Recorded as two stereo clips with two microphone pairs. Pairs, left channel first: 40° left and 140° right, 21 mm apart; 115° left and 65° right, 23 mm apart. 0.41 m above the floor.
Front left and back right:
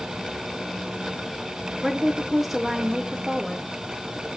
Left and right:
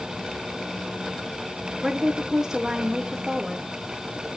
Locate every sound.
1.8 s a woman speaking: 65° right, 0.8 m